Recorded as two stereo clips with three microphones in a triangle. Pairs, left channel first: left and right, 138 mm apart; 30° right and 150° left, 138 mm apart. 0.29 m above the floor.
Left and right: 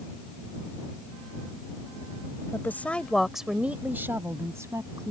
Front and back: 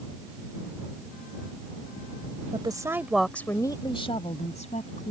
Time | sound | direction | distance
2.5 | a woman speaking | 150° left | ?